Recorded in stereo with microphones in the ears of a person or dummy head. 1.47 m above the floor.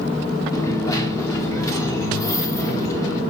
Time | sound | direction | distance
0.5 | a dropped coin | 15° left (ahead or behind) | 1.8 m